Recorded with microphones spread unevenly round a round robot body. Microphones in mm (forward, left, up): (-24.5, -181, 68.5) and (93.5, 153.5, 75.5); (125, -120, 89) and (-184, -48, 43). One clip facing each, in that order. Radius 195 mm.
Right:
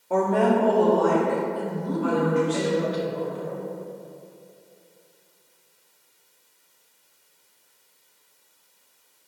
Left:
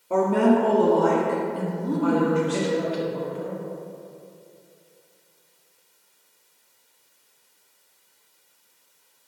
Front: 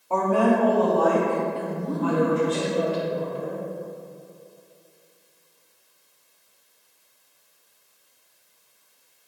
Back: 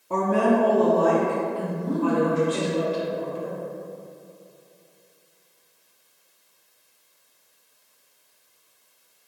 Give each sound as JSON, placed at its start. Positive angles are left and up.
{"t": 0.1, "sound": "a woman speaking", "azimuth_deg": 155, "distance_m": 0.9}
{"t": 1.6, "sound": "a woman speaking", "azimuth_deg": 95, "distance_m": 1.3}